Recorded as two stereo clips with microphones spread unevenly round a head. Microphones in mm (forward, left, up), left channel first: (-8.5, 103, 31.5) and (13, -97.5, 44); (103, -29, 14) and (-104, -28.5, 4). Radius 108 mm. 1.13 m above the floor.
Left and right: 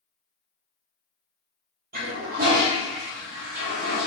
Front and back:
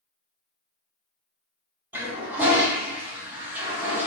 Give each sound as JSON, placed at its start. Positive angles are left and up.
{"t": 1.9, "sound": "a toilet flushing", "azimuth_deg": -100, "distance_m": 0.6}